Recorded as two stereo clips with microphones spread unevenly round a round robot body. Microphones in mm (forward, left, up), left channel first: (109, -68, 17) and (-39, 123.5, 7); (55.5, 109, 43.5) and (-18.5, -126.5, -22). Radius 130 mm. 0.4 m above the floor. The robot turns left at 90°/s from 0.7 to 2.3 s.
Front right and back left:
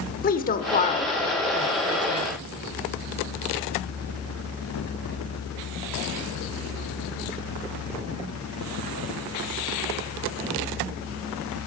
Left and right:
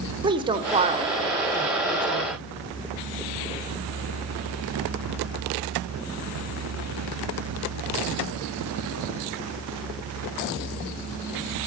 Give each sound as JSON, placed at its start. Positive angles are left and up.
{"t": 0.2, "sound": "a woman speaking", "azimuth_deg": -85, "distance_m": 1.3}